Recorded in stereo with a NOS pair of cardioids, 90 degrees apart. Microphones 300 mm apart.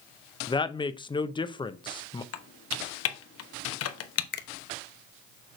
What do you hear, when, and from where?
0.5 s a woman speaking: 15° left, 0.7 m
2.3 s typing on a keyboard: 55° left, 1.0 m
4.3 s a finger snap: 35° left, 0.7 m